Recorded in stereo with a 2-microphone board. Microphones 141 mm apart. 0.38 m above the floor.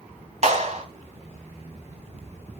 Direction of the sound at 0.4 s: 55° right (ahead or behind).